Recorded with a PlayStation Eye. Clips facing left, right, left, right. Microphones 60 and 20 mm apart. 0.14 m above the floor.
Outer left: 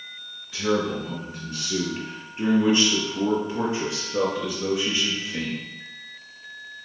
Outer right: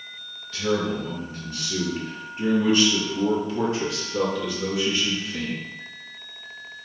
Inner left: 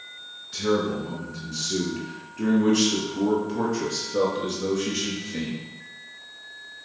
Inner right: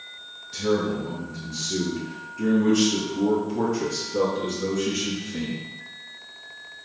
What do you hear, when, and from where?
0.5 s a man speaking: 20° left (ahead or behind), 1.6 m; by 5.6 s 15° left (ahead or behind), 2.5 m